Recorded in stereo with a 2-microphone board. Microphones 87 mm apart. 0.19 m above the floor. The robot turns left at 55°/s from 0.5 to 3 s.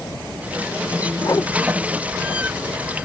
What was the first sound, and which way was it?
A whoosh, 40° left (ahead or behind).